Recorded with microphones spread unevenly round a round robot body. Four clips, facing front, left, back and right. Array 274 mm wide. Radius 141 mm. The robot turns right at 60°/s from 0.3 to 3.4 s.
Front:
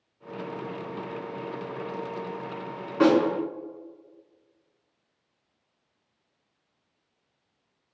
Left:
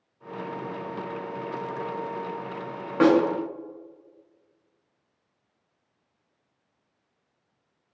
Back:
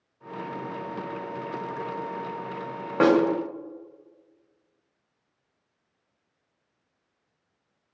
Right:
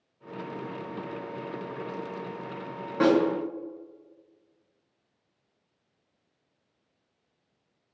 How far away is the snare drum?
About 1.6 m.